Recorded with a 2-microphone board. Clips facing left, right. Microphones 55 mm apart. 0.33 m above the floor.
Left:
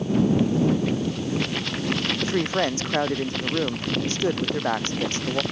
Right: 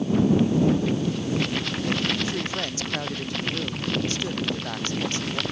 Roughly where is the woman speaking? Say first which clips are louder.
Left 5 dB; left.